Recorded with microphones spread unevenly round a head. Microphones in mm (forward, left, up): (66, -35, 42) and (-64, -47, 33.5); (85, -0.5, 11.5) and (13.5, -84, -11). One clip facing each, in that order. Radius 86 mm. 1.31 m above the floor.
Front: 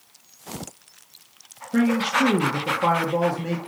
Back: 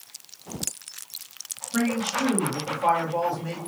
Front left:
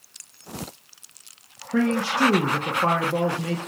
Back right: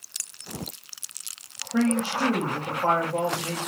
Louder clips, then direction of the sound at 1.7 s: Front 5 dB, front left 2 dB; 45° left.